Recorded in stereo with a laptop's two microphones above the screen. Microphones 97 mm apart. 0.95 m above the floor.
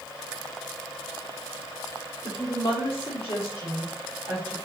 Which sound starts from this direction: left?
A woman speaking, at 2.2 s.